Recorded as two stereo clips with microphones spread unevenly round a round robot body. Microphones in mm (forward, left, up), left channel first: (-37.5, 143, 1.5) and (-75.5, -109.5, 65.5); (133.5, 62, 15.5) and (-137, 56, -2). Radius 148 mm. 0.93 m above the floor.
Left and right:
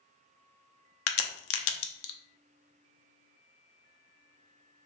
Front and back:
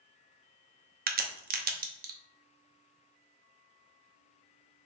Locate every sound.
1.1 s a crack: 120° left, 0.7 m